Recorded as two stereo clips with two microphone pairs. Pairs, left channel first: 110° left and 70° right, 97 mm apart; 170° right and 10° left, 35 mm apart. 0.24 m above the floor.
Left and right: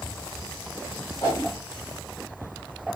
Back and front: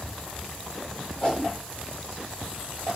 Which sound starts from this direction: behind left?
A whoosh, at 1.2 s.